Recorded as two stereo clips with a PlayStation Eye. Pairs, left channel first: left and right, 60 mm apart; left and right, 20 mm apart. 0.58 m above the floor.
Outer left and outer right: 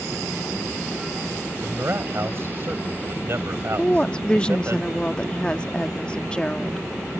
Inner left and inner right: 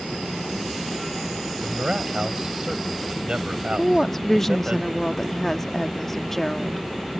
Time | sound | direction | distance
1.6 | a man speaking | 50° right (ahead or behind) | ?
3.8 | a woman speaking | 20° left (ahead or behind) | ?